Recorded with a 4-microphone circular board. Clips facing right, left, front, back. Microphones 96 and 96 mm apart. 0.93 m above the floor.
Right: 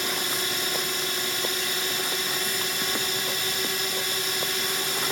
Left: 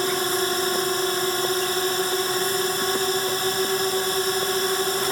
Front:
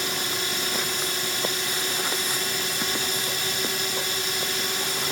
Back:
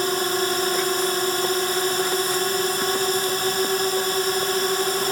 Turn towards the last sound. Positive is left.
turn(degrees=135)